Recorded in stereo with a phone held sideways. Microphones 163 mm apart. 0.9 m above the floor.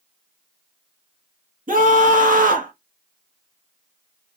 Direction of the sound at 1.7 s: 55° right (ahead or behind).